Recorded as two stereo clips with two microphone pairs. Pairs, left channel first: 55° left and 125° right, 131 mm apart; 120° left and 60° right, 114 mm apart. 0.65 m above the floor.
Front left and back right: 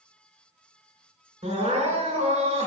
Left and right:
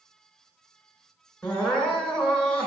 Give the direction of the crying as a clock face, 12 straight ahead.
5 o'clock.